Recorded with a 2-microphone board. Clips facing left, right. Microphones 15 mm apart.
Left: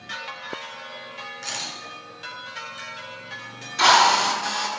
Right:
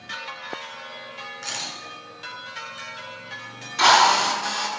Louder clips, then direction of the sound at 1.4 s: Even; 30° right (ahead or behind).